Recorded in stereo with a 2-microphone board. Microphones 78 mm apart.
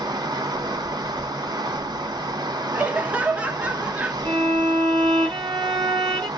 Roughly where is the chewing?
I don't hear chewing.